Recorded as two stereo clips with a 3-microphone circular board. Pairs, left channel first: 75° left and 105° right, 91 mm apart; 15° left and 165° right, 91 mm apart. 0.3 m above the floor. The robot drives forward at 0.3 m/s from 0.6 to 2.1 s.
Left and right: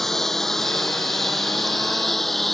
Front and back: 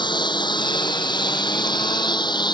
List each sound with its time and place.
0.0 s a lawn mower: 10° right; by 2.5 s 15° right